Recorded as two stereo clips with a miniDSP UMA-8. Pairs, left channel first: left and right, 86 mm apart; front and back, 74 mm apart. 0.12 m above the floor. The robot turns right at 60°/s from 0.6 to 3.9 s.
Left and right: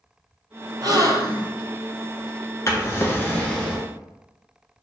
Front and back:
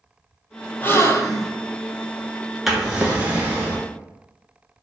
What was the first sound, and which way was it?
A gasp, 60° right.